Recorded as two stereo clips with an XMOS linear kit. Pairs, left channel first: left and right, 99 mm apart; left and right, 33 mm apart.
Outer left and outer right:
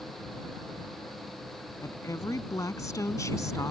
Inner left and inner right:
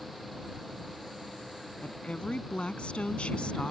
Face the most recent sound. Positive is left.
turn(degrees=35)  # may be behind; listen again after turning